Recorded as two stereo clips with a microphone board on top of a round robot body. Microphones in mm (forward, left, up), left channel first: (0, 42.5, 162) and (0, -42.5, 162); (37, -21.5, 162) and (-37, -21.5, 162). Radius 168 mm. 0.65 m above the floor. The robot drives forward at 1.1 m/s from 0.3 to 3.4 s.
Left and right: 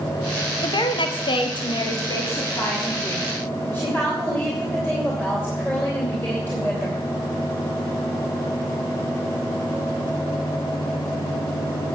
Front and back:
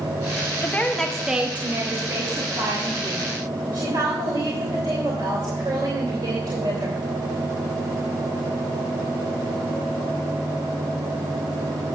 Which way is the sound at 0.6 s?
60° left.